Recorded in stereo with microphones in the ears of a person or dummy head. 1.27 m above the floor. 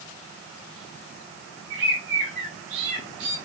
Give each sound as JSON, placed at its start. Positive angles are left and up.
{"t": 1.7, "sound": "a bird", "side_deg": -70, "distance_m": 2.5}